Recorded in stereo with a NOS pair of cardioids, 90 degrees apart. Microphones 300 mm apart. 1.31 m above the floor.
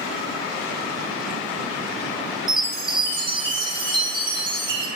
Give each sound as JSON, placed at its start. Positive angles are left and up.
{"t": 2.5, "sound": "a chime", "azimuth_deg": -15, "distance_m": 0.6}